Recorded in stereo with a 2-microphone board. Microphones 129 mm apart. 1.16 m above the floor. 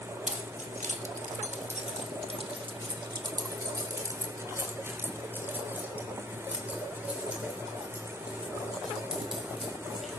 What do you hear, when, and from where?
0.3 s keys jangling: 75° right (ahead or behind), 1.3 m; by 10.2 s 5° right (ahead or behind), 5 m